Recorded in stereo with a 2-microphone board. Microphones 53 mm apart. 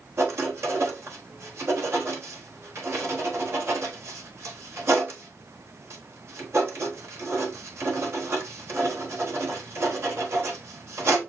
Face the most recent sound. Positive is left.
turn(degrees=-50)  # may be behind; listen again after turning